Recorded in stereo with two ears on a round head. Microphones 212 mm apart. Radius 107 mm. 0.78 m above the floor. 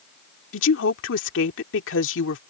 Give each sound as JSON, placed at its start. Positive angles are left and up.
{"t": 0.5, "sound": "a woman speaking", "side_deg": 55}